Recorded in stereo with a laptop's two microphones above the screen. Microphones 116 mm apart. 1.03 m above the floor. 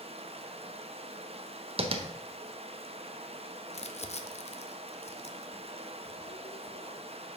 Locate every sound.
0.0 s running water: 55° right (ahead or behind), 0.8 m
1.8 s tapping: 50° right (ahead or behind), 0.7 m
3.7 s crumpling: 60° left (ahead or behind), 0.6 m